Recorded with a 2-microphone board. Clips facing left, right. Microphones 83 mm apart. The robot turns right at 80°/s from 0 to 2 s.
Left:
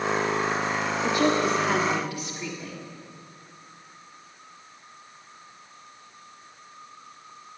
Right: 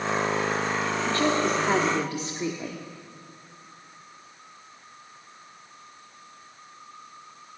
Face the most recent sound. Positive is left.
turn(degrees=-135)